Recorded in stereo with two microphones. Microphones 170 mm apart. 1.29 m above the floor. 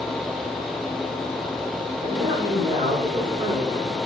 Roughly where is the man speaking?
Right.